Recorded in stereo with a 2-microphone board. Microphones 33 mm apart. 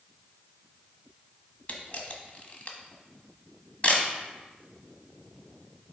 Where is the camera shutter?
45° left (ahead or behind), 1.3 m.